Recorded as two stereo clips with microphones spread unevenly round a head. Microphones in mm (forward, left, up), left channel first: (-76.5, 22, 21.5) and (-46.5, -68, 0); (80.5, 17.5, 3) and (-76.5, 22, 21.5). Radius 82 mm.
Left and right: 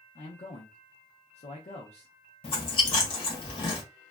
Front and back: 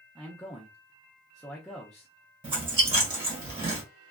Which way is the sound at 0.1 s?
80° left.